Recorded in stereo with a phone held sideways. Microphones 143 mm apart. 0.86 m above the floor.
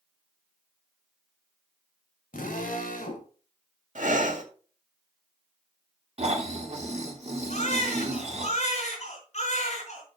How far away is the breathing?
About 2 m.